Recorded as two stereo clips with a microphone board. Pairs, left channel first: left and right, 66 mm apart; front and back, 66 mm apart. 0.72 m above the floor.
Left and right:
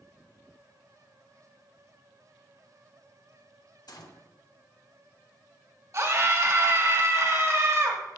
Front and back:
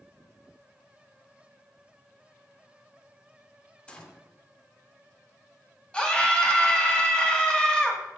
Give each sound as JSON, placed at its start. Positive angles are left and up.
{"t": 3.9, "sound": "a gunshot", "azimuth_deg": 70, "distance_m": 0.8}
{"t": 5.9, "sound": "a scream", "azimuth_deg": -70, "distance_m": 1.5}